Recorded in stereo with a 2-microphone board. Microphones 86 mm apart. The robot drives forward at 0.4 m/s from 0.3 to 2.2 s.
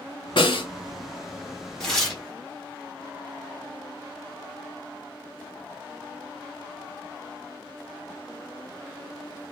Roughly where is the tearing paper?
Centre.